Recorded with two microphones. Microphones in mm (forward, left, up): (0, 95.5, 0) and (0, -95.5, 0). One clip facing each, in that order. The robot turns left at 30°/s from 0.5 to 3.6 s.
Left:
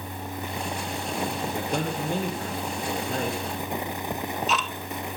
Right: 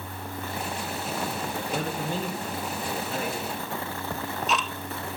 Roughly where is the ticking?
Centre.